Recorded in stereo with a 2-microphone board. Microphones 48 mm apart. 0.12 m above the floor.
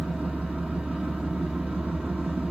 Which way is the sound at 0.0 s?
Centre (ahead or behind).